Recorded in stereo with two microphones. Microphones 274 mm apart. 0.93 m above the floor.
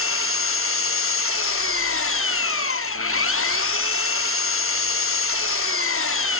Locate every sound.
0.0 s an engine running: 50° left (ahead or behind), 0.7 m